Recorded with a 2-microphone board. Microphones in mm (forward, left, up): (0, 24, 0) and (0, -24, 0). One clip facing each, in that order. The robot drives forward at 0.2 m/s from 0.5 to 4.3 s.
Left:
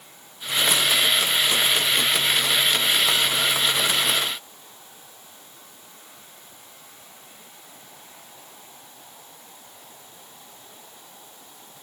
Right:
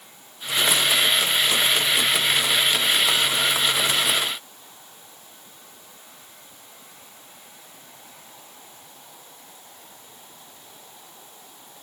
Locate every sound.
Only background noise.